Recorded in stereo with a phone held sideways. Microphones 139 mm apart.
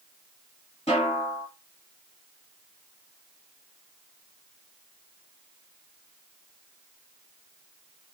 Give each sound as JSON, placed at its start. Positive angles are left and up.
{"t": 0.9, "sound": "a snare drum", "side_deg": 45, "distance_m": 1.4}